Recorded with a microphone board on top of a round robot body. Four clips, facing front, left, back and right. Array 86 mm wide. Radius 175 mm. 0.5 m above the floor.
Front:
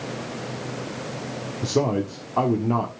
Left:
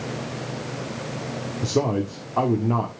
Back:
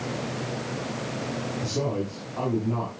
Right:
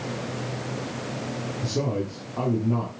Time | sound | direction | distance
1.6 | a man speaking | 40° left | 1.6 m